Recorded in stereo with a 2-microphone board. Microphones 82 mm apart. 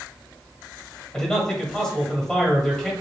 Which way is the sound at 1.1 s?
10° left (ahead or behind).